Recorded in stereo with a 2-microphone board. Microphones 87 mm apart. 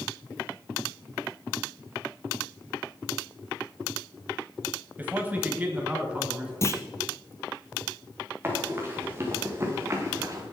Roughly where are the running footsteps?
Right.